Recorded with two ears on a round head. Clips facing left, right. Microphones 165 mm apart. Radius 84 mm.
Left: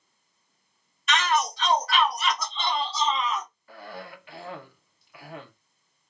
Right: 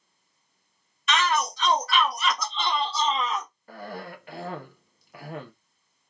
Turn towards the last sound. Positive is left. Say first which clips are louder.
# right 6 dB
turn(degrees=-40)  # may be behind; listen again after turning